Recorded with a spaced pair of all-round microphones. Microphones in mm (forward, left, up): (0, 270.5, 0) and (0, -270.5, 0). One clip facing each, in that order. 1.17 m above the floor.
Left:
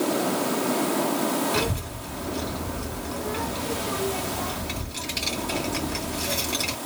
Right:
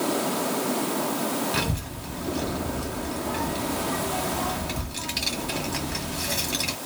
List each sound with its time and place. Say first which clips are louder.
1.5 s a child speaking: left 3 dB; 20° right (ahead or behind), 1.4 m